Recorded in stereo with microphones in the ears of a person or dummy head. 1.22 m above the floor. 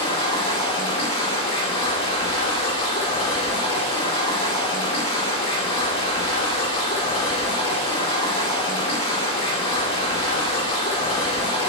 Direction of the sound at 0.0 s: 30° left (ahead or behind).